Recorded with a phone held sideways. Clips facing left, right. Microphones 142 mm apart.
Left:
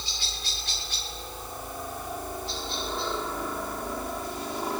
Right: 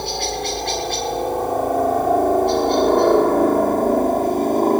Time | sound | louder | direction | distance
0.0 | a helicopter | right 18 dB | 65° right (ahead or behind) | ?